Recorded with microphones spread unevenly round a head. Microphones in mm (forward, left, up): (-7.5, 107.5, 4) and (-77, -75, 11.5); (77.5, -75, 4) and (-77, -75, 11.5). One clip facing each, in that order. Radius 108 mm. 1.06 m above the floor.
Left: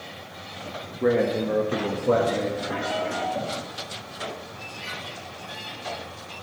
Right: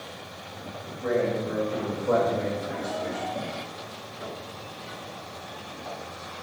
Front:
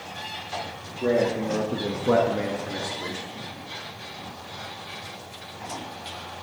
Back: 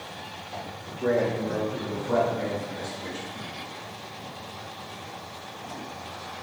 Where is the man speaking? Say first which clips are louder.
Left 4 dB, front 2 dB; 80° left, 1.6 m; by 3.3 s 25° right, 2.5 m.